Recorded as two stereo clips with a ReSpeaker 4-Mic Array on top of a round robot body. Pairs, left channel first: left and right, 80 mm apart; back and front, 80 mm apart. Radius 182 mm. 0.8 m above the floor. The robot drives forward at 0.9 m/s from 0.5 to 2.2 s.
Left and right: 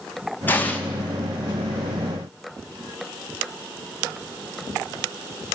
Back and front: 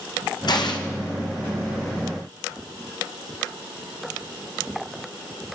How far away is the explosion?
About 2.5 m.